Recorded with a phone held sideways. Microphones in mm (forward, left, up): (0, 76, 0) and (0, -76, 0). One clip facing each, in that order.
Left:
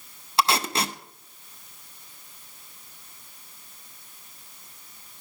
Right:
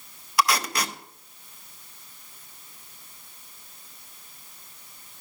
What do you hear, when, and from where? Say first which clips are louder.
0.4 s tape being pulled: even; 25° left (ahead or behind), 0.6 m